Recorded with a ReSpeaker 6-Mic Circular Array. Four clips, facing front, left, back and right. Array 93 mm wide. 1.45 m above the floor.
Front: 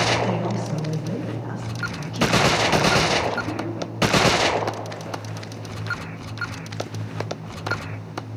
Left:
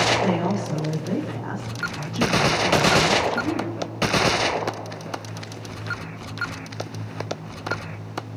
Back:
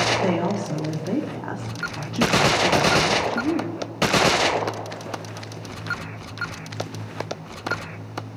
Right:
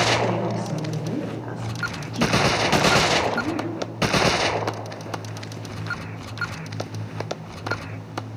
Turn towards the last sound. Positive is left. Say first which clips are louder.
# left 1 dB, back 2 dB
turn(degrees=175)